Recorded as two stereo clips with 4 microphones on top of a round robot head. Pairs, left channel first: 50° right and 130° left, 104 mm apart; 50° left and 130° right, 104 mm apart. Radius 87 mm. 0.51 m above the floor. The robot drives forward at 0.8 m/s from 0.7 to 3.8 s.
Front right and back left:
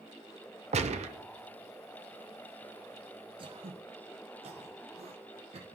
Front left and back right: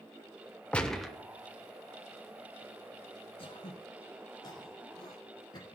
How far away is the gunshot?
About 0.8 m.